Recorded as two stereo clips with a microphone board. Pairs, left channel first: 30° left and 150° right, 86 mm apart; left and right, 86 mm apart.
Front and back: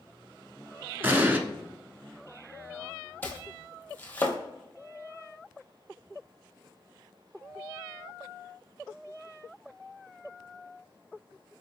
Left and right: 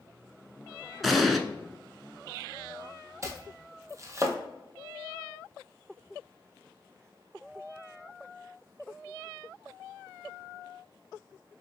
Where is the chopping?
35° right, 0.7 m.